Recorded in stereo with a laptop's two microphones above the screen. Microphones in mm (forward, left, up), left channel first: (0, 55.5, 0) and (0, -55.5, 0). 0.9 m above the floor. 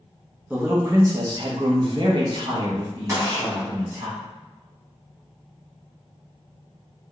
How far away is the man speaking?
About 0.8 m.